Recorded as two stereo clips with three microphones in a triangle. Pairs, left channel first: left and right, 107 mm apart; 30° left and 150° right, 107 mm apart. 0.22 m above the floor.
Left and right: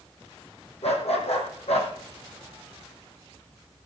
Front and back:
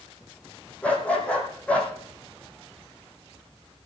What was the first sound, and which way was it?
A dog barking, 105° left.